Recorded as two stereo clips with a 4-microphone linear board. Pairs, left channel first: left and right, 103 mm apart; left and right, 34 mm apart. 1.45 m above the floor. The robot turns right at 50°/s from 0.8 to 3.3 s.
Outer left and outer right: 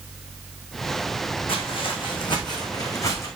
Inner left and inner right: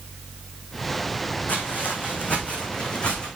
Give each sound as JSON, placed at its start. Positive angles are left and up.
{"t": 1.5, "sound": "footsteps", "side_deg": 65, "distance_m": 3.5}